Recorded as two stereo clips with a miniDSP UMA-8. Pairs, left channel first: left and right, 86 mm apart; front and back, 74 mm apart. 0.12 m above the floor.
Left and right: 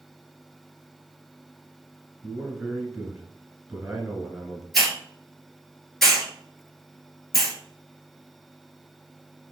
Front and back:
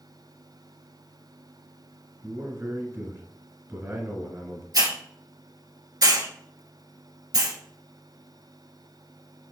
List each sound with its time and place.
2.2 s a man speaking: 175° right, 1.4 m
4.7 s a hiss: straight behind, 1.4 m